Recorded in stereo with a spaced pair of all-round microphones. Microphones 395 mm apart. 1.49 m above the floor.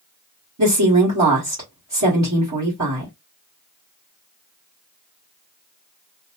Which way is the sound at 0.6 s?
45° right (ahead or behind).